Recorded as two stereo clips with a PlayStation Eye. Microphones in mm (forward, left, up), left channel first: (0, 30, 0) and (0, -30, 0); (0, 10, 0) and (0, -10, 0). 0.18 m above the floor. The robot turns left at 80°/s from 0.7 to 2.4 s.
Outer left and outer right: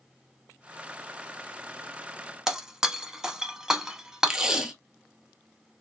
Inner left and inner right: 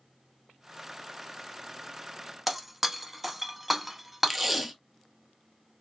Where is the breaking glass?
10° right (ahead or behind), 0.5 m.